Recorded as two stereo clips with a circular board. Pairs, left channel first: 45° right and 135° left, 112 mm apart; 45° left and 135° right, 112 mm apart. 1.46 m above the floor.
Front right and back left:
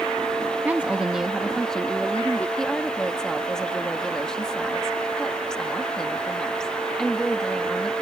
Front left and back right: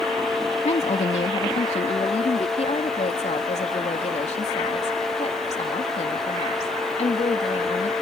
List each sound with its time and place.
0.7 s a woman speaking: 60° left; by 2.5 s 30° left
2.6 s a woman speaking: 40° left